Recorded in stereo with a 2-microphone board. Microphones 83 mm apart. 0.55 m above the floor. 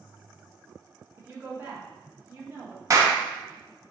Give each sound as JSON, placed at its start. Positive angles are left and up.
{"t": 1.2, "sound": "a woman speaking", "side_deg": -25, "distance_m": 0.8}
{"t": 2.9, "sound": "a clap", "side_deg": -40, "distance_m": 0.6}